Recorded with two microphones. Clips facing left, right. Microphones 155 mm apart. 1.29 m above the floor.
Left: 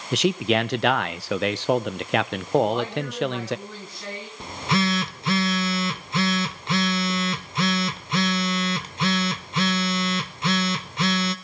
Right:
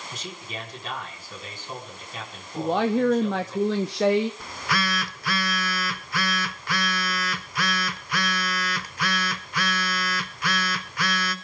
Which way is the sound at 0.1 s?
65° left (ahead or behind).